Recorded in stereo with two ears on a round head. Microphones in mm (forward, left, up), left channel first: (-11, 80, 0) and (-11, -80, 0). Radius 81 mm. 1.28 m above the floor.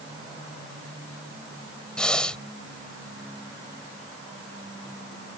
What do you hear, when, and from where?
2.0 s breathing: 5° left (ahead or behind)